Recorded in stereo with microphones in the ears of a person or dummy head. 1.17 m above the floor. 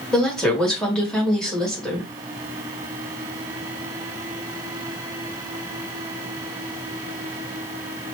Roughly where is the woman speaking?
Centre.